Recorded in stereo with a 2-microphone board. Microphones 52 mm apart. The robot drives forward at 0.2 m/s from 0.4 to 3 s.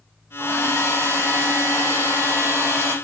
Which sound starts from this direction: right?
A hair dryer, at 0.4 s.